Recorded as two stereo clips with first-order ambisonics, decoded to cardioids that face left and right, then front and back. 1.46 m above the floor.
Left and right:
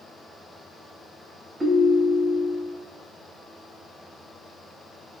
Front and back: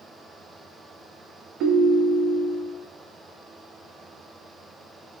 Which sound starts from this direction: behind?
A ringtone, at 1.6 s.